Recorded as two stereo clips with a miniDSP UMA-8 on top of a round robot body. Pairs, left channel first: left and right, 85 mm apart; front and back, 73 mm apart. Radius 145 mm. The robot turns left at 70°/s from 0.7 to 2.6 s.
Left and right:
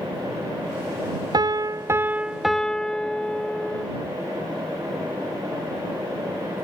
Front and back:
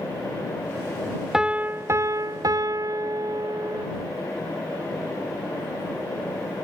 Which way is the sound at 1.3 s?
100° right.